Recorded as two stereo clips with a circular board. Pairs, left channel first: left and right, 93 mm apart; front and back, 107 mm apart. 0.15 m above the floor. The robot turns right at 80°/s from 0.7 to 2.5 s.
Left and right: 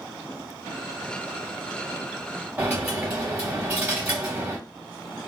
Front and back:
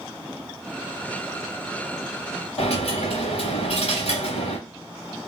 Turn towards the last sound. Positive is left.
turn(degrees=-15)